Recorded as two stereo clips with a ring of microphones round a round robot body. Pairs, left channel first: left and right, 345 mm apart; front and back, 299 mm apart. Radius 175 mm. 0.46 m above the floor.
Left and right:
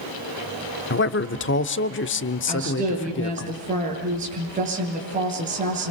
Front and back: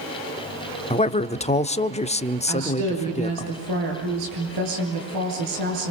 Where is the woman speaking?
160° right, 9 m.